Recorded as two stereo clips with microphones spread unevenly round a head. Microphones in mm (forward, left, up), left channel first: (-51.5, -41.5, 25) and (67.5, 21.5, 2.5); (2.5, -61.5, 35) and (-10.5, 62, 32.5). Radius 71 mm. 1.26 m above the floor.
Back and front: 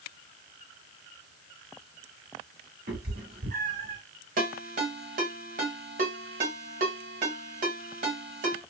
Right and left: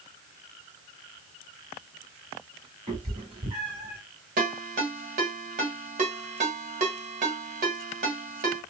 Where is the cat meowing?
45° left, 1.4 m.